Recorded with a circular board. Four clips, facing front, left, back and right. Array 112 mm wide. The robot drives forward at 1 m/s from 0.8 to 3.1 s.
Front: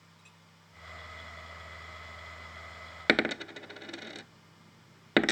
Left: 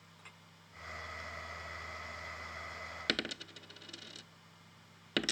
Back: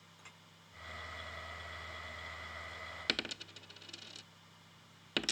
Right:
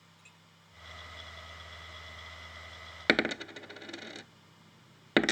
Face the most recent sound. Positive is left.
turn(degrees=-40)